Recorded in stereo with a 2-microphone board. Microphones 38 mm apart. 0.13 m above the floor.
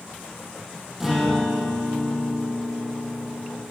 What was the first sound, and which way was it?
A guitar, 10° right (ahead or behind).